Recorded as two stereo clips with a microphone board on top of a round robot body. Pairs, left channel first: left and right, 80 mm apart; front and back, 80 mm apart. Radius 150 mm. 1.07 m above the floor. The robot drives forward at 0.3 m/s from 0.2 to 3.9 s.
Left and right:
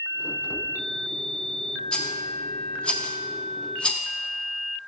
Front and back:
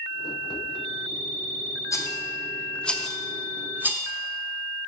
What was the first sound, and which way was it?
A rattle, 15° left.